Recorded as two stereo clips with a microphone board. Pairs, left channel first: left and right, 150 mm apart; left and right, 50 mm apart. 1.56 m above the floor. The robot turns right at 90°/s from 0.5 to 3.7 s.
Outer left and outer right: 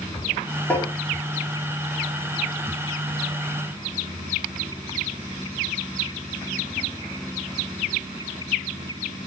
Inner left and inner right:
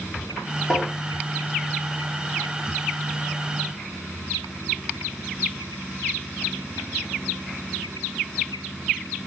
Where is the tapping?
10° left (ahead or behind), 4 m; by 0.9 s 30° left (ahead or behind), 4 m.